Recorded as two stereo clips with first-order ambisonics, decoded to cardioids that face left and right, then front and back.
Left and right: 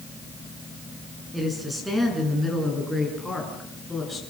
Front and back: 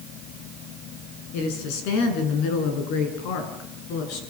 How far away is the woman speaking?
About 6.5 m.